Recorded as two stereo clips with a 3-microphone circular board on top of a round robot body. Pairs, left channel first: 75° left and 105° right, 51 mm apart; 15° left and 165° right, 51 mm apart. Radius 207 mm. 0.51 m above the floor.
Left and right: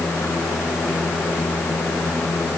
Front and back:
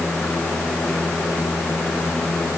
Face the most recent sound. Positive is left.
No sound to turn to.